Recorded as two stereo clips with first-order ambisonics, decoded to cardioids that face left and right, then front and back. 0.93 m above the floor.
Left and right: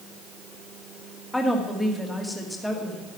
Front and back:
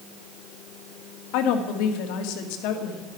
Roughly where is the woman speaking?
Ahead.